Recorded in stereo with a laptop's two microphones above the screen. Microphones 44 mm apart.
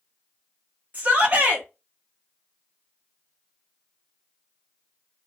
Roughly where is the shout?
Right.